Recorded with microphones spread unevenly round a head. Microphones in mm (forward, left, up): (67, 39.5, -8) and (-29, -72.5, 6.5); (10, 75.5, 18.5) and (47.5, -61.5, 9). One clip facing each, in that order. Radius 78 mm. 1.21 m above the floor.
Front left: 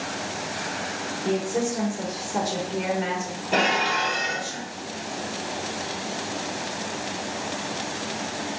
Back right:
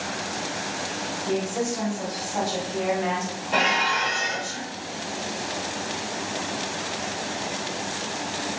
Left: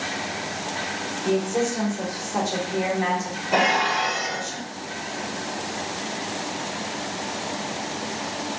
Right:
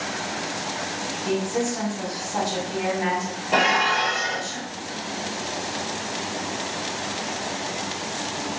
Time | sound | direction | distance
1.2 | a woman speaking | 35° left | 1.7 m
3.5 | dishes clattering | 15° left | 1.7 m